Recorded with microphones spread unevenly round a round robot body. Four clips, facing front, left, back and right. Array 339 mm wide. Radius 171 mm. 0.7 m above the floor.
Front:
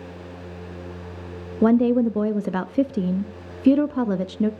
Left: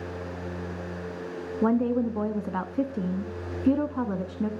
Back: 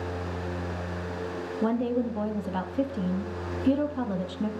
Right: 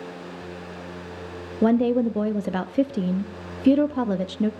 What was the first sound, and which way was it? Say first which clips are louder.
A woman speaking: right 4 dB, front 10 dB; 30° right.